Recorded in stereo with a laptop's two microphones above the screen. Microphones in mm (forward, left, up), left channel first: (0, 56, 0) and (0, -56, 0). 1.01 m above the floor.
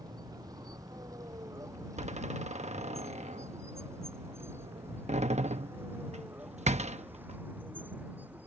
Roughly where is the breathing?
No breathing in this recording.